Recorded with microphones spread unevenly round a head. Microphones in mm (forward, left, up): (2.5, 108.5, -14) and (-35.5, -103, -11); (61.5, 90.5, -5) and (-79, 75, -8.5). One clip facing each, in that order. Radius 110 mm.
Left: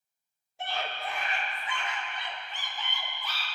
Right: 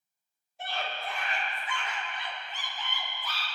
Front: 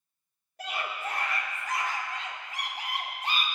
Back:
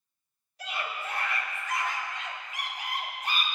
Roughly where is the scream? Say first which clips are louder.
Left 1 dB, front 1 dB; ahead left.